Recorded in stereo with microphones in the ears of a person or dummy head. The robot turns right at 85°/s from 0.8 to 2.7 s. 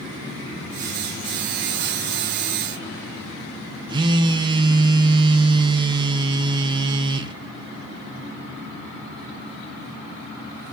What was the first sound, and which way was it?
A phone buzzing, 20° right (ahead or behind).